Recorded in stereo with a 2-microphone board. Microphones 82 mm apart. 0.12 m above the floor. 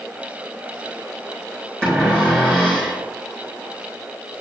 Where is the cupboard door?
10° left (ahead or behind), 3.5 m.